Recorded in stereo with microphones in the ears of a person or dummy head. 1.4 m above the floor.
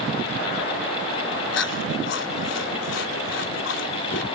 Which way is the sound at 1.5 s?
75° left (ahead or behind).